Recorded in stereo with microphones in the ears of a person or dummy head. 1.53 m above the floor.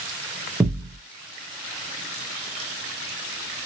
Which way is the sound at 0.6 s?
10° right (ahead or behind).